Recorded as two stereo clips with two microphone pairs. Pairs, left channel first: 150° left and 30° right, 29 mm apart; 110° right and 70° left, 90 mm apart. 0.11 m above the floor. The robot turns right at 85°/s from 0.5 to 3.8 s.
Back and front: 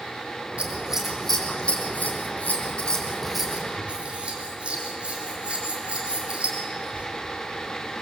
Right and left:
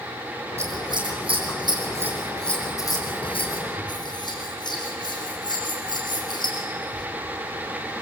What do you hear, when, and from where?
0.6 s scissors: 10° left, 5.5 m; by 7.1 s 80° right, 5.5 m